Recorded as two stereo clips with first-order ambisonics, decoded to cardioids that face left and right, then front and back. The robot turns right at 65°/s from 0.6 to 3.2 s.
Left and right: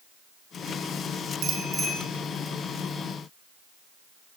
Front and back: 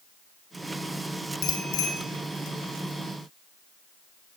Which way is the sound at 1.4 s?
35° right.